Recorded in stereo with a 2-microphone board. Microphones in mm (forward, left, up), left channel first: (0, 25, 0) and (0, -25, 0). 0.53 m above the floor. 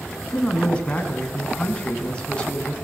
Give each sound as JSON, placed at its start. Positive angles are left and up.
{"t": 0.3, "sound": "a man speaking", "side_deg": 20, "distance_m": 5.0}